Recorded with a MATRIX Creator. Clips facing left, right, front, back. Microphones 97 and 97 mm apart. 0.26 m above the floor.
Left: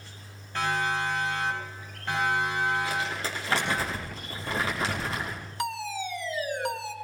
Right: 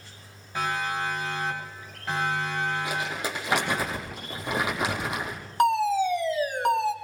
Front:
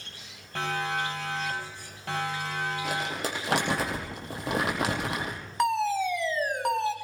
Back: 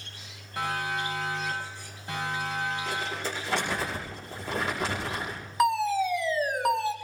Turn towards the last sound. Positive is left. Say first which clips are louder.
# right 11 dB, back 1 dB
turn(degrees=-95)